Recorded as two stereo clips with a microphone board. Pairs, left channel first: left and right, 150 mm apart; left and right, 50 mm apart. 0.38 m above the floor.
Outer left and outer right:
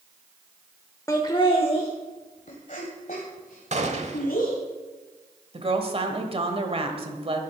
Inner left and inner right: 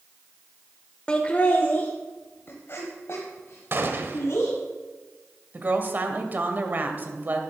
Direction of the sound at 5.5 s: 40° right (ahead or behind).